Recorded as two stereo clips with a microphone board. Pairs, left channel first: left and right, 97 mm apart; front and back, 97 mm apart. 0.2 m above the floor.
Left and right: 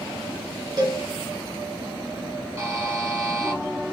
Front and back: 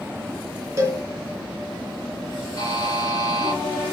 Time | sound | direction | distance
0.8 | a cowbell | 125° right | 1.9 m
2.6 | a buzzer | 40° right | 2 m